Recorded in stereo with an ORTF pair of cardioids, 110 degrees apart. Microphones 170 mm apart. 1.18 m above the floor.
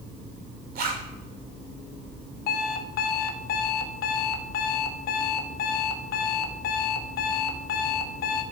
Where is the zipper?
65° right, 5.5 m.